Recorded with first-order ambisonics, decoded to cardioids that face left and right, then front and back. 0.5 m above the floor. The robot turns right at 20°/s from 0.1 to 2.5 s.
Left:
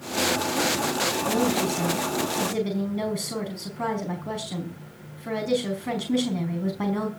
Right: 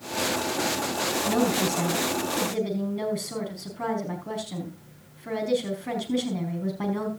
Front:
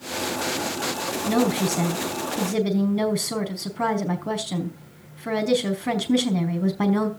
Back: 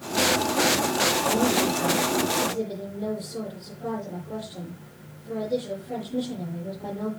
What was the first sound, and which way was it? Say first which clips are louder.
A woman speaking: even, even; 15° right.